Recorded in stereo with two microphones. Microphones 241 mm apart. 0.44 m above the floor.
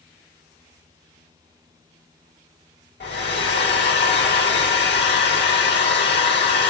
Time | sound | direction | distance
3.0 | a hair dryer | 45° left (ahead or behind) | 1.5 m